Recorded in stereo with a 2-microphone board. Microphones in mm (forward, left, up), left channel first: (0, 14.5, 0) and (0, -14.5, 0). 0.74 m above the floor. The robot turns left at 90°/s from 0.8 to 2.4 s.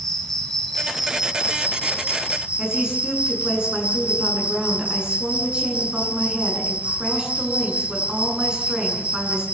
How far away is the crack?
I don't hear a crack.